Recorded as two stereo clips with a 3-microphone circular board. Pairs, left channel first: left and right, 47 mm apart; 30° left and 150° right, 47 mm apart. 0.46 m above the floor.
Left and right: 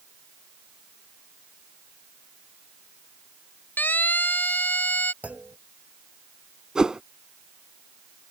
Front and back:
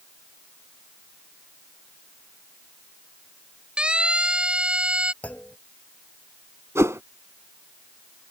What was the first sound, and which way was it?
A siren, 140° left.